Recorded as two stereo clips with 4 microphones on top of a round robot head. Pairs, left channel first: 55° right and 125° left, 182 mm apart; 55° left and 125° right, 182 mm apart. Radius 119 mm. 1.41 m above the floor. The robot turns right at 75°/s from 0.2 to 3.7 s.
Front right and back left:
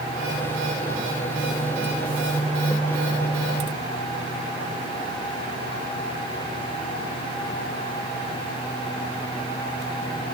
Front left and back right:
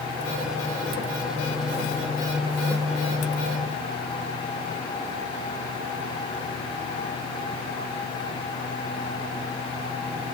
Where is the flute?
No flute in this recording.